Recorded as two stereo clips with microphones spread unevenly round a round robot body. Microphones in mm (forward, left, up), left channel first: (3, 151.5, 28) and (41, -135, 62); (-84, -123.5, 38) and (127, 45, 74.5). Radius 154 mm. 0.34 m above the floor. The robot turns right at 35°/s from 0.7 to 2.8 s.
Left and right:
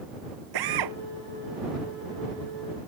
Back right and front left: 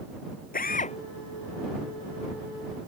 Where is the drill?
80° right; by 1.0 s 70° right.